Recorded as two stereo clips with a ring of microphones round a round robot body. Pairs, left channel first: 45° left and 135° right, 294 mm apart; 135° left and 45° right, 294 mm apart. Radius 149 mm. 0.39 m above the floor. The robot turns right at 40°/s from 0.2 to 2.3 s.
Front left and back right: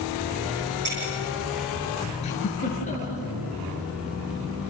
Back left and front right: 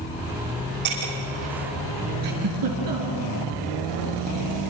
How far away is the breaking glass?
About 8.5 m.